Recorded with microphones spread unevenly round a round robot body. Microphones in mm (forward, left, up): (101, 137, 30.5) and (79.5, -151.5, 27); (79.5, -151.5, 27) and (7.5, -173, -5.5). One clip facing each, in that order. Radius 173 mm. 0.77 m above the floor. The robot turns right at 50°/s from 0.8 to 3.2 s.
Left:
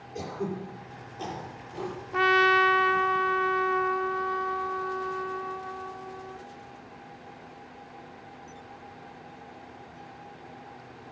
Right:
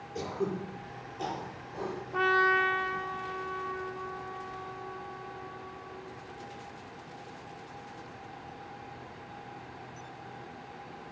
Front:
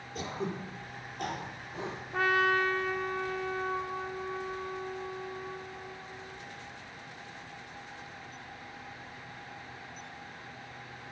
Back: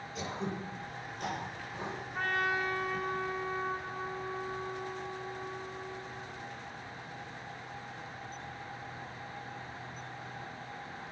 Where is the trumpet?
25° left, 0.6 m; by 6.4 s 75° left, 0.6 m.